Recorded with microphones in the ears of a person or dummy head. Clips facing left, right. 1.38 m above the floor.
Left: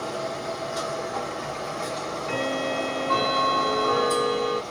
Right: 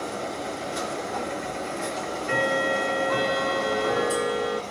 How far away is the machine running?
About 1.6 m.